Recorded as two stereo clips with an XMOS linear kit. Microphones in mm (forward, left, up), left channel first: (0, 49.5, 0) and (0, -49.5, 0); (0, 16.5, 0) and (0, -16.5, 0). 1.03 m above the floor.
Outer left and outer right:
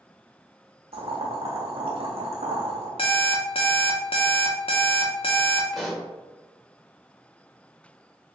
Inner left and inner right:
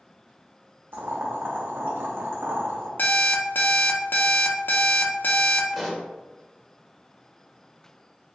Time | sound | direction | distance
0.9 | boiling | 85° right | 0.8 m
3.0 | an alarm clock | 65° left (ahead or behind) | 0.7 m
5.7 | a pop | centre (ahead or behind) | 0.8 m